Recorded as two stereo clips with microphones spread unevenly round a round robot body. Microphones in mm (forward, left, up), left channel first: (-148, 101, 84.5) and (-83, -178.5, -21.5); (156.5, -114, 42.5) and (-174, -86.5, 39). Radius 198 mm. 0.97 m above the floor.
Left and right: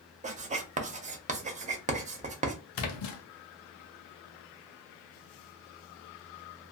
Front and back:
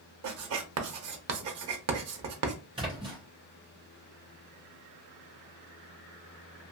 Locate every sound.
0.2 s writing: 155° right, 0.6 m
2.8 s a splash: 100° left, 0.6 m